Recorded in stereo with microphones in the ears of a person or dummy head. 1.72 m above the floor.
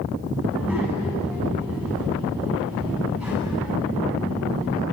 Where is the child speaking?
5° right (ahead or behind), 7 m.